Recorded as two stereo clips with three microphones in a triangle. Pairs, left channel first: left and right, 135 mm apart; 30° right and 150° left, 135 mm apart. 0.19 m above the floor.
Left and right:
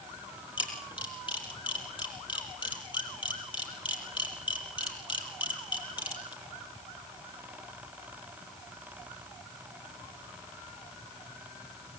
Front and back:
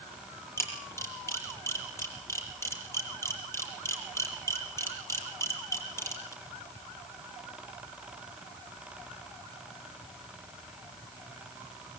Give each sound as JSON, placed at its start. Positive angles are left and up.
{"t": 0.6, "sound": "a camera shutter", "azimuth_deg": 40, "distance_m": 5.5}